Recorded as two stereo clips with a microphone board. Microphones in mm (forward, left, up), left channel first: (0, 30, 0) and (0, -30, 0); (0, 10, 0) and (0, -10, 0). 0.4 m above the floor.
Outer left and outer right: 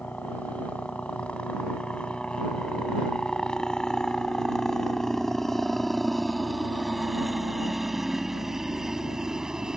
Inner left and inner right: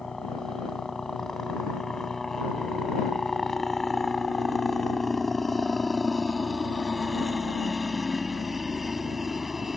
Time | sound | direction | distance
0.0 | a helicopter | 25° left (ahead or behind) | ?